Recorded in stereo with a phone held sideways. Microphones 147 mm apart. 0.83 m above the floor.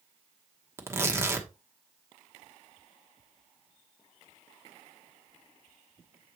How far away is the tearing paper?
About 1.1 m.